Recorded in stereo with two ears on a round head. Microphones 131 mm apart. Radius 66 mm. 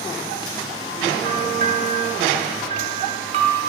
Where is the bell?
45° right (ahead or behind), 1.9 m.